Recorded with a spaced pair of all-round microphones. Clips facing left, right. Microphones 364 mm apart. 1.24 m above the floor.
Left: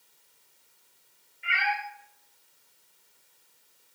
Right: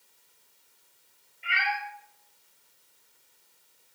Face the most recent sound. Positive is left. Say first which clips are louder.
# left 1 dB
turn(degrees=25)  # may be behind; listen again after turning